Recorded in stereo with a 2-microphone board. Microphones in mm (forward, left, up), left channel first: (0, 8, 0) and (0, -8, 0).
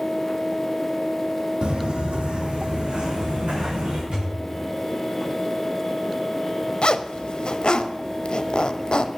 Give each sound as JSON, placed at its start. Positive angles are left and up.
{"t": 1.6, "sound": "footsteps", "side_deg": -70, "distance_m": 1.6}
{"t": 4.1, "sound": "a thud", "side_deg": -55, "distance_m": 6.5}
{"t": 6.8, "sound": "a zipper", "side_deg": 60, "distance_m": 0.6}